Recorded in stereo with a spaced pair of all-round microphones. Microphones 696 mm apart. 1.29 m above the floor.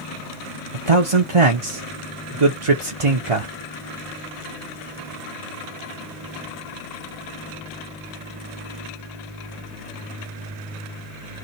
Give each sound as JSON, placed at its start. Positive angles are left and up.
{"t": 0.7, "sound": "a man speaking", "side_deg": -50, "distance_m": 1.0}